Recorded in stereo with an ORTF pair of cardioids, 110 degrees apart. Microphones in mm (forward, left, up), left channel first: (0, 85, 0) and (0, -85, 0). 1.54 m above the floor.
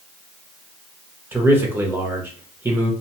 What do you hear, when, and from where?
1.3 s a man speaking: 10° right, 0.7 m